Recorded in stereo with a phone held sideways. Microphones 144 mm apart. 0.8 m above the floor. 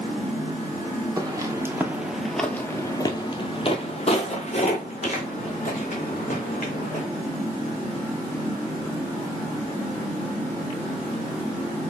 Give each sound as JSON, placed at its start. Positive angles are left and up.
{"t": 1.2, "sound": "footsteps", "side_deg": -25, "distance_m": 1.0}